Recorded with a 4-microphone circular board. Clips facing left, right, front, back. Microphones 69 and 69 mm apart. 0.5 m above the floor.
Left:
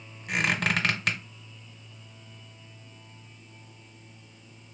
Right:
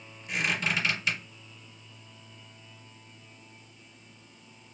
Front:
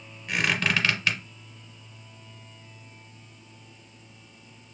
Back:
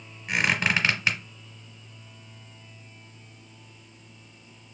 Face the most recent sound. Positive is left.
turn(degrees=110)